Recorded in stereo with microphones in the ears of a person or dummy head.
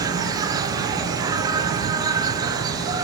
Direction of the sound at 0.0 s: 20° right (ahead or behind).